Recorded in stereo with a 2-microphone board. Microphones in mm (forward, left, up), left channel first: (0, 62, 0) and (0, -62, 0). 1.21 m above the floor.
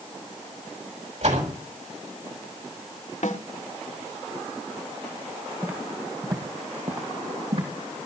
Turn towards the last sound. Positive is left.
turn(degrees=-55)  # may be behind; listen again after turning